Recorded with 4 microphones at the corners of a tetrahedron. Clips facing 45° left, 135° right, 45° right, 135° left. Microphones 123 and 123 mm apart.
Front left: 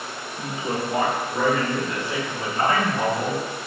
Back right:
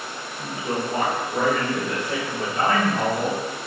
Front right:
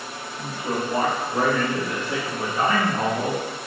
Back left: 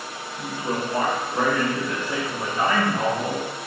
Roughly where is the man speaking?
Ahead left.